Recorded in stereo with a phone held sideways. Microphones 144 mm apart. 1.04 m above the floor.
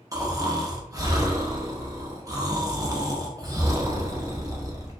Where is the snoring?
25° right (ahead or behind), 0.5 m.